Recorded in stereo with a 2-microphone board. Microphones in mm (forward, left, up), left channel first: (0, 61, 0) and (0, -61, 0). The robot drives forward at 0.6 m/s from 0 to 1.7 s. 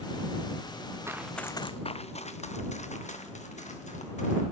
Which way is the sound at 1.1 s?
20° right (ahead or behind).